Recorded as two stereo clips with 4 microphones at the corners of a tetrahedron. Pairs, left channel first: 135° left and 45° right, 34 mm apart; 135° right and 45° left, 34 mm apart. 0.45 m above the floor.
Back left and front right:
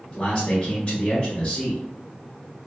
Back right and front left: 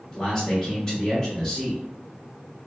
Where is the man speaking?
170° left, 0.9 m.